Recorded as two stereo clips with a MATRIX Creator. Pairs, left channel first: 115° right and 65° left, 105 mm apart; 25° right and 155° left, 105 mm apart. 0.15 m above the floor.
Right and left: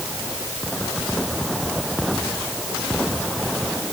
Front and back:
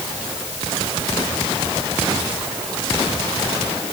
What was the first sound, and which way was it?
Only background noise.